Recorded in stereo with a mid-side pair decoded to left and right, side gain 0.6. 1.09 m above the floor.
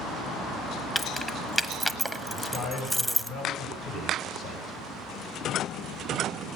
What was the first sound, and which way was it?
Keys jangling, 5° left.